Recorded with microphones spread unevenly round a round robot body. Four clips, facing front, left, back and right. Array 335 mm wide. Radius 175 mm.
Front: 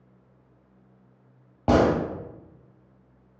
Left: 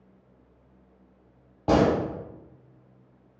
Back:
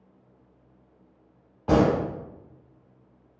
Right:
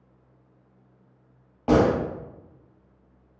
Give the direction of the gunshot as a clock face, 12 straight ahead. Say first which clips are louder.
Right 1 dB, front 1 dB; 12 o'clock.